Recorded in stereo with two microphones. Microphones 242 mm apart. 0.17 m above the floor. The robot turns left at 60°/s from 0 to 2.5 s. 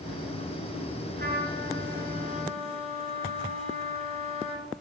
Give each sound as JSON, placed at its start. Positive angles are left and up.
{"t": 1.2, "sound": "a trumpet", "azimuth_deg": -60, "distance_m": 2.0}